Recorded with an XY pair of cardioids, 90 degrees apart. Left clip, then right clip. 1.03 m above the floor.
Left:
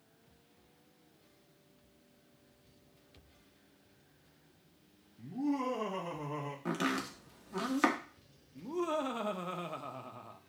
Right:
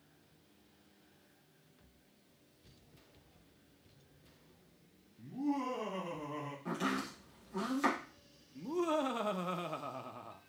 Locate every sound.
5.2 s laughter: 15° left, 2.0 m; by 6.5 s 30° left, 3 m
6.7 s chopping: 70° left, 1.2 m
8.6 s laughter: 15° right, 0.8 m